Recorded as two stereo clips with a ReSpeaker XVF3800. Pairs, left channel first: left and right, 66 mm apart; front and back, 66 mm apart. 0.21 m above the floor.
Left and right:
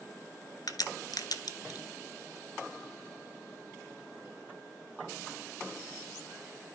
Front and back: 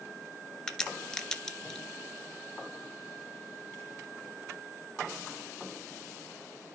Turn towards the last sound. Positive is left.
turn(degrees=80)